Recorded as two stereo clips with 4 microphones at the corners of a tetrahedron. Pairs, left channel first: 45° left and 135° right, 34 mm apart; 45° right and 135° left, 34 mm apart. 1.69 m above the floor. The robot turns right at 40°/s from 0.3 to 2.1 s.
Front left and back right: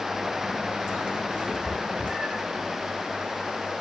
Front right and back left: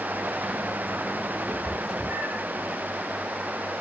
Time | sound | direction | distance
1.5 | a cat meowing | 125° left | 3.5 m